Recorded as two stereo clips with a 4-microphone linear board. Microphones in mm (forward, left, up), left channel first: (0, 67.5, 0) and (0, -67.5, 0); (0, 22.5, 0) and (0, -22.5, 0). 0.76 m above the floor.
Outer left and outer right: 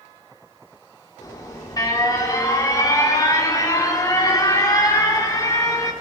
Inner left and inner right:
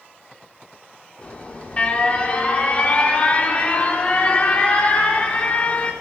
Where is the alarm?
30° left (ahead or behind), 3.5 m.